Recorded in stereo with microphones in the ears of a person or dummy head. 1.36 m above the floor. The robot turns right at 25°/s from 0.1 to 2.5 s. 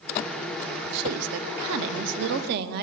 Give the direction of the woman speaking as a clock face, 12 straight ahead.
3 o'clock.